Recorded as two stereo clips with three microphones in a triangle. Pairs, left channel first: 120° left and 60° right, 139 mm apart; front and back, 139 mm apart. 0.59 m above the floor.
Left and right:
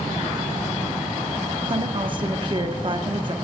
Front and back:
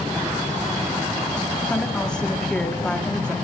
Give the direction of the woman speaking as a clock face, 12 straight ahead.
3 o'clock.